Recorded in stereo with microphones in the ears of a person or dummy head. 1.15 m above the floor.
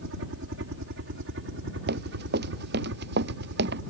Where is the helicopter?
60° right (ahead or behind); by 3.9 s 70° right (ahead or behind).